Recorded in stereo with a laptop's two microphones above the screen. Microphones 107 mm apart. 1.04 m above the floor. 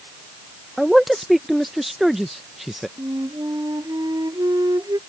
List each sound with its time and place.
0.8 s a man speaking: centre (ahead or behind)
3.0 s a flute: 40° right (ahead or behind)